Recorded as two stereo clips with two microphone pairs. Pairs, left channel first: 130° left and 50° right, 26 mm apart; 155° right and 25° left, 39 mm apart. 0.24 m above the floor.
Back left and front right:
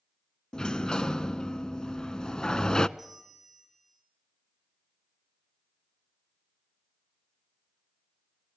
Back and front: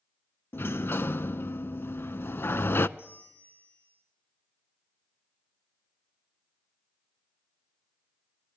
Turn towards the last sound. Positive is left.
turn(degrees=-135)